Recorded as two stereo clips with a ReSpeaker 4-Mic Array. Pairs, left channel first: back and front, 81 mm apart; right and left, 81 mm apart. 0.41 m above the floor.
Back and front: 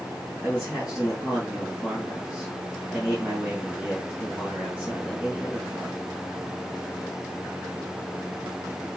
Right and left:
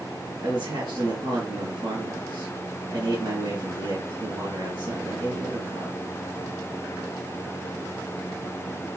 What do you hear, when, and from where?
0.4 s a man speaking: 75° left, 3 m